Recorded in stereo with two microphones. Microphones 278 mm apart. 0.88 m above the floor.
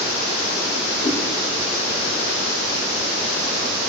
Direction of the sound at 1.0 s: 25° left (ahead or behind).